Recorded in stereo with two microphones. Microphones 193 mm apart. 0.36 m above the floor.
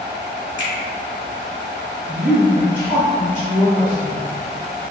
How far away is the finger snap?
About 1.0 m.